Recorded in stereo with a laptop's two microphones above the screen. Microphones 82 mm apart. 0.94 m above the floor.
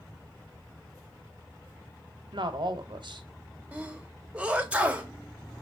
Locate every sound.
2.3 s a woman speaking: 75° right (ahead or behind), 0.8 m
3.7 s a sneeze: 15° right (ahead or behind), 1.1 m